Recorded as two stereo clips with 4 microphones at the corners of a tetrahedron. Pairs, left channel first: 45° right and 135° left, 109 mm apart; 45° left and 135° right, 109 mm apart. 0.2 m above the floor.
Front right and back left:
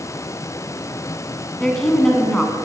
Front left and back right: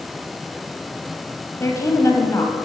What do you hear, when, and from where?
1.6 s a woman speaking: 35° left, 1.4 m